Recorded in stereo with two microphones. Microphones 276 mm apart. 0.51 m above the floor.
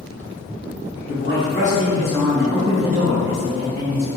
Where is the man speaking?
45° left (ahead or behind), 1.0 m; by 4.1 s 55° right (ahead or behind), 1.3 m.